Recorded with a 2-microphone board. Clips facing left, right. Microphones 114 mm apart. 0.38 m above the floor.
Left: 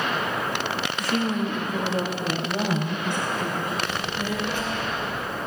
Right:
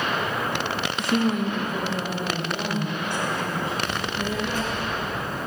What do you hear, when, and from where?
1.0 s a woman speaking: 25° right (ahead or behind), 0.9 m; by 3.8 s 50° left (ahead or behind), 2.5 m
3.9 s a child speaking: 40° right (ahead or behind), 4.5 m